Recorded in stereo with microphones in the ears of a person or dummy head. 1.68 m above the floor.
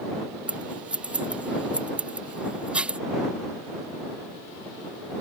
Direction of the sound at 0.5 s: 10° right (ahead or behind).